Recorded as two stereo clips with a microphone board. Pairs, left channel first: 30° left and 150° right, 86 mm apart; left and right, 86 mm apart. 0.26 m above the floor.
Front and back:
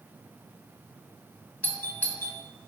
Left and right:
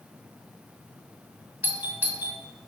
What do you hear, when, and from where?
1.6 s a doorbell: 30° right, 2.0 m